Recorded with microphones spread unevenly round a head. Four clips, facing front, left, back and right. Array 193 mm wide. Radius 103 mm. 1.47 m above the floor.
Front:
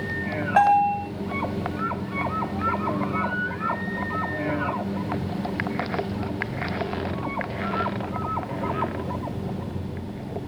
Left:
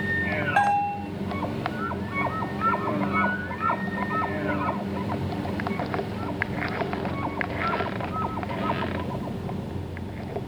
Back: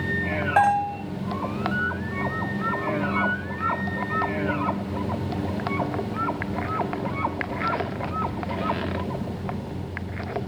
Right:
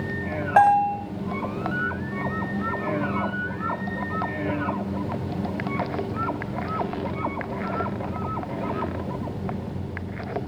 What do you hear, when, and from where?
0.6 s a bell: 90° right, 6.5 m